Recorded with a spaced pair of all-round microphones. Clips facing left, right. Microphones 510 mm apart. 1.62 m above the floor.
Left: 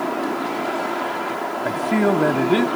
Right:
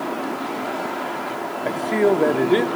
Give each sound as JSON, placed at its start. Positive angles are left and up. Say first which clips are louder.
{"t": 1.6, "sound": "a man speaking", "louder": "right 1 dB", "side_deg": 30, "distance_m": 0.7}